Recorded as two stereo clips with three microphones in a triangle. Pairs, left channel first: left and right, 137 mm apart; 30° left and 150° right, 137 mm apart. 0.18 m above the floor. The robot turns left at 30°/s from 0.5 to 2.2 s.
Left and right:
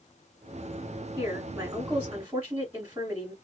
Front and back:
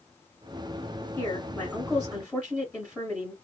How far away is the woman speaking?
About 1.6 m.